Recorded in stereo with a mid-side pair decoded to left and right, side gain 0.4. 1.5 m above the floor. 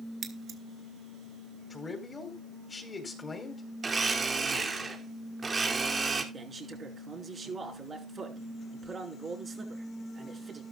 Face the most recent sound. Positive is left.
turn(degrees=-35)